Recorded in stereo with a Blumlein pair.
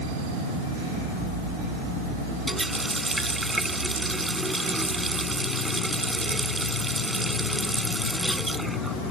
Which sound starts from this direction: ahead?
A running tap, at 2.5 s.